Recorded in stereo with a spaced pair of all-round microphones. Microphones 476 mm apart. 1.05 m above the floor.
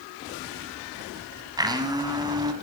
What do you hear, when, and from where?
1.6 s a blender: 10° right (ahead or behind), 1.5 m